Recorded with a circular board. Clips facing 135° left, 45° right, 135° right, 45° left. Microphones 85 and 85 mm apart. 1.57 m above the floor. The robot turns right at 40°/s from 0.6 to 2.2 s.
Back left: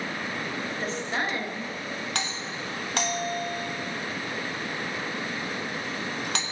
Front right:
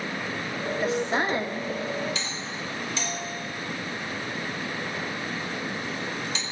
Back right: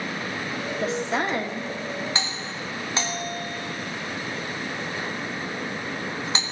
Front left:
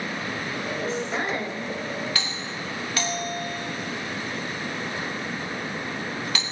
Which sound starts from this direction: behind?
A doorbell, at 2.1 s.